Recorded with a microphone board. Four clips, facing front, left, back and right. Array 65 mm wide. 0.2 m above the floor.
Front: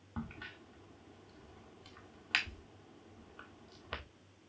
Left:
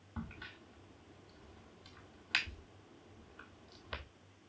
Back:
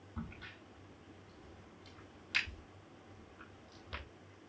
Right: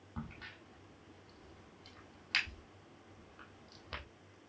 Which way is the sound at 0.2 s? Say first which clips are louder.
Even, front 3 dB; straight ahead.